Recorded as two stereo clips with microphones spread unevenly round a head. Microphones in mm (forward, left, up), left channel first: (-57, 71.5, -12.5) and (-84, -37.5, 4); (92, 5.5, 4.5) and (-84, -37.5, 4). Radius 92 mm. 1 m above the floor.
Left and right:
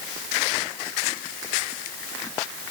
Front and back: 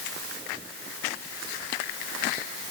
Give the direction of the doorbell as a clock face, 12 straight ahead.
No doorbell in this recording.